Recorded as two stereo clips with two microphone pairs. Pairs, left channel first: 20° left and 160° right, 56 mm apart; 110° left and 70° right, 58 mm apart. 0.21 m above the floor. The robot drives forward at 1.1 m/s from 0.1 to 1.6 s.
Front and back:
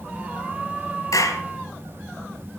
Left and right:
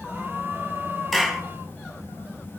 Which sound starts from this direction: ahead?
A clap, at 1.1 s.